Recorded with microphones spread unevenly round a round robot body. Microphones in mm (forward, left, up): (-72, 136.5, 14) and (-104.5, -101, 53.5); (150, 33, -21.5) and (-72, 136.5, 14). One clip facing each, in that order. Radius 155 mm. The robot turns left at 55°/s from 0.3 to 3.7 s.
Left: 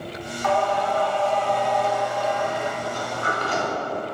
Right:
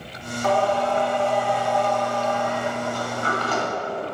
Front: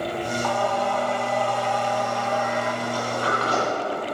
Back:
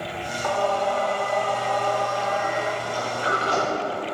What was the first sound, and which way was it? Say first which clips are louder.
Singing: right 2 dB, back 4 dB; 130° right.